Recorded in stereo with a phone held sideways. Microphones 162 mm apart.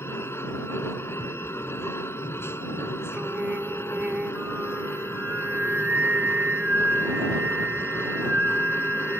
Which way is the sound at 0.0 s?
15° left (ahead or behind).